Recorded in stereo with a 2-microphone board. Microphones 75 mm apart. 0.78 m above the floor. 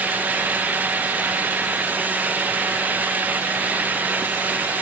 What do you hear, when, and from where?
Only background noise.